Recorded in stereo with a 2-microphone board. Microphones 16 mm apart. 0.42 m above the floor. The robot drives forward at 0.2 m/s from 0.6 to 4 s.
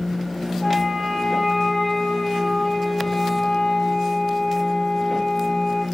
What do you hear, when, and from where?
0.6 s a flute: 5° left (ahead or behind), 7.5 m